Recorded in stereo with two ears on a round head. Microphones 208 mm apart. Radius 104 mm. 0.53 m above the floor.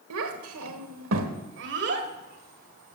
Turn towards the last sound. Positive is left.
turn(degrees=-40)  # may be behind; listen again after turning